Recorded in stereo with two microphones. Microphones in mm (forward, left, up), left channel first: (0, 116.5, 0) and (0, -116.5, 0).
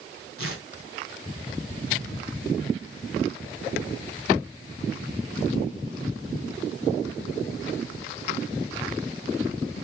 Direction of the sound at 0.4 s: 70° right (ahead or behind).